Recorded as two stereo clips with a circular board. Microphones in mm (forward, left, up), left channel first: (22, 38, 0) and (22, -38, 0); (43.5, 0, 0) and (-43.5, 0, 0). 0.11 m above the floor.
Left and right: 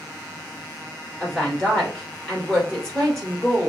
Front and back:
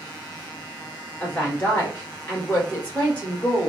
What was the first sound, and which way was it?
A woman speaking, 15° left.